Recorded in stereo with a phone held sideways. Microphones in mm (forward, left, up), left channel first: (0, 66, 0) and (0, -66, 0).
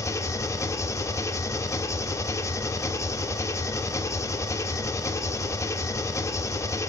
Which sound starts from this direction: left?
An engine running, at 0.0 s.